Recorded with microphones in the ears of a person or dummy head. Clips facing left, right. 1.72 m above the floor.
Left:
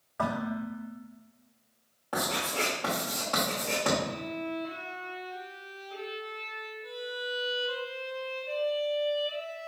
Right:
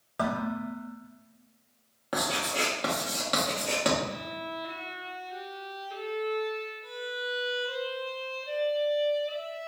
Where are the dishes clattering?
45° right (ahead or behind), 1.3 m.